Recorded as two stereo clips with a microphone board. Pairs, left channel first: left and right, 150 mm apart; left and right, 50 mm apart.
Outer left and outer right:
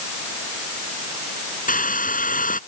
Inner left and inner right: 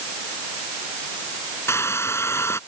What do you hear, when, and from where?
1.7 s a hair dryer: 65° left (ahead or behind)